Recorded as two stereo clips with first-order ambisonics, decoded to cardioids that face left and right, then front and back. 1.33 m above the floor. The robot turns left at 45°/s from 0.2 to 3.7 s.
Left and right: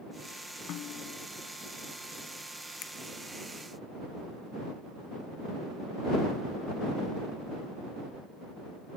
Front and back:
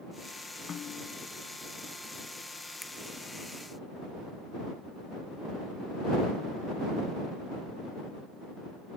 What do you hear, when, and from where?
0.7 s a snare drum: 60° left; by 1.3 s 35° left
2.8 s a finger snap: 95° left; by 2.9 s 90° left